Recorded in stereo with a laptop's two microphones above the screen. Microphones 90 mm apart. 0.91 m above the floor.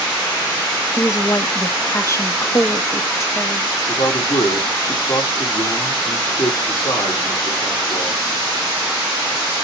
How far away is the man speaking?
About 1.4 m.